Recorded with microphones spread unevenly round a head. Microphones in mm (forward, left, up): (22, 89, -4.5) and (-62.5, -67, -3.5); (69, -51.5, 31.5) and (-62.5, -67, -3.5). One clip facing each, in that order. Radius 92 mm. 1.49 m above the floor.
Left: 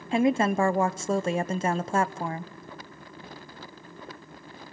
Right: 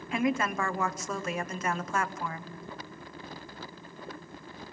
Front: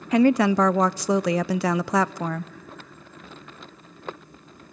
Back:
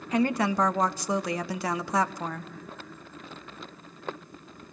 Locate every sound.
0.1 s a woman speaking: 5° right, 0.5 m